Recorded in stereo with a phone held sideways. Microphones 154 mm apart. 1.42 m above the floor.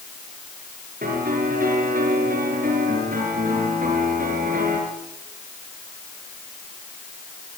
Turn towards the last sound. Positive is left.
turn(degrees=-65)  # may be behind; listen again after turning